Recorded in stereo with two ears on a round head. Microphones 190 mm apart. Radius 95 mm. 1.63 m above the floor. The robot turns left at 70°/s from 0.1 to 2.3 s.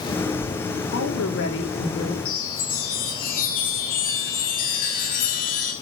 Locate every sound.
0.9 s a woman speaking: 100° left, 4 m; by 2.1 s 15° left, 4 m
2.2 s a chime: 45° left (ahead or behind), 6 m; by 5.7 s 40° left (ahead or behind), 6 m